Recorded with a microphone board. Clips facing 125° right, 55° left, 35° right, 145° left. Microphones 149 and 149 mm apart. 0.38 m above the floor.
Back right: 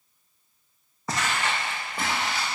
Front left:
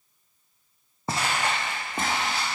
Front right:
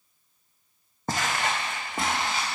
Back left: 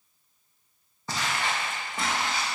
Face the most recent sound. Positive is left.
turn(degrees=20)